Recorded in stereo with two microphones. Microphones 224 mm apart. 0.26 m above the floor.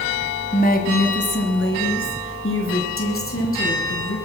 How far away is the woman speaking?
About 1.7 m.